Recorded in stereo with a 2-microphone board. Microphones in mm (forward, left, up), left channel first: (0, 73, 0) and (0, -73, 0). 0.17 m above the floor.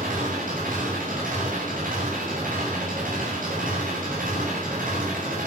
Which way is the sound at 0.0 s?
70° right (ahead or behind).